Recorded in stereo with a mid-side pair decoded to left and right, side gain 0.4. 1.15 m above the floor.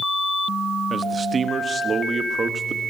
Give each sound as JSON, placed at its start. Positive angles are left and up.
{"t": 0.9, "sound": "a man speaking", "azimuth_deg": -50, "distance_m": 1.2}